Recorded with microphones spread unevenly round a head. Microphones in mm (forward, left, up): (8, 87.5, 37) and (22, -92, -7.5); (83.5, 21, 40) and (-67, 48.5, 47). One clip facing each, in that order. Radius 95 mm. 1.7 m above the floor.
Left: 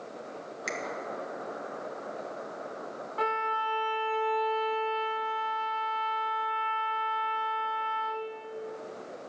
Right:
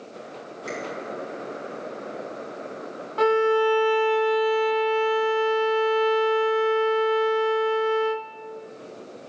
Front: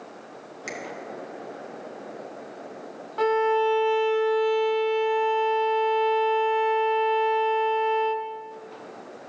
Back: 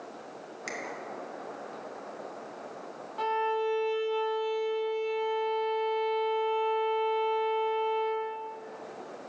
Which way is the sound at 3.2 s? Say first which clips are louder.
Right 15 dB, front 8 dB; 50° right.